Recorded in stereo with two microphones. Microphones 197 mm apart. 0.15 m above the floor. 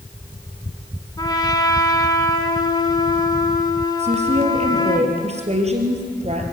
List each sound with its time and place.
1.2 s a trumpet: 20° left (ahead or behind), 1.5 m
4.0 s a woman speaking: 35° right (ahead or behind), 3 m